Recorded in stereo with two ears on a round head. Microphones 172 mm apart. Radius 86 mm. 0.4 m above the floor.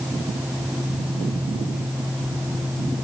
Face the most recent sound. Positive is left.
No sound to turn to.